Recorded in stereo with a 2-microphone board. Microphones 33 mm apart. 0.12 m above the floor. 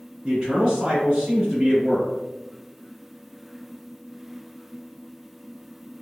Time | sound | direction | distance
0.2 | a man speaking | 20° right (ahead or behind) | 1.9 m